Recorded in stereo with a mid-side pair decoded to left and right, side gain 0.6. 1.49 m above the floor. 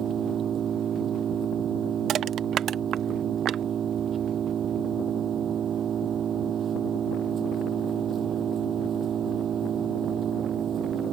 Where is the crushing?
55° right.